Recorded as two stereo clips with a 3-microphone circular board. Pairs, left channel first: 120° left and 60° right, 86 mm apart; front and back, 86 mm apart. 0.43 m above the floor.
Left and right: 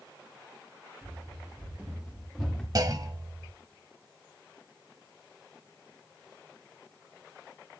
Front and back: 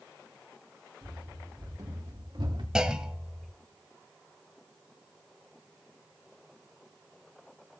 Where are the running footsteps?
115° right, 4 m; by 2.6 s 155° right, 3 m.